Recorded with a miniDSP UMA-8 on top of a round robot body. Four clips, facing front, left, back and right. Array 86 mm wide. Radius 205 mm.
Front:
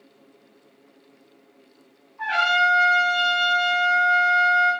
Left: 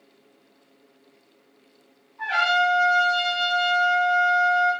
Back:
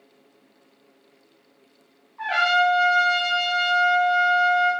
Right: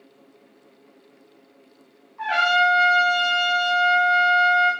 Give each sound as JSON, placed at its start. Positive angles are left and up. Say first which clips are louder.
{"t": 2.2, "sound": "a trumpet", "louder": "right 2 dB, even", "azimuth_deg": -130, "distance_m": 0.6}